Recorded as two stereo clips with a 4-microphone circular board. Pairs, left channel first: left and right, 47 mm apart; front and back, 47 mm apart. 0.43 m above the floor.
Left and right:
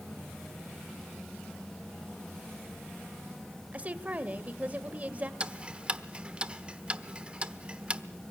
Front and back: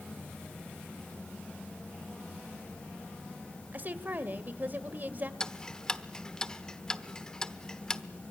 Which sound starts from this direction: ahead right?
Ticking, at 5.4 s.